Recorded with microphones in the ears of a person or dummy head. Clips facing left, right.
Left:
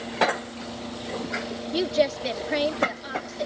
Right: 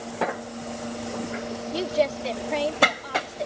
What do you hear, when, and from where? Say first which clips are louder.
1.7 s a woman speaking: left 1 dB; 15° left (ahead or behind)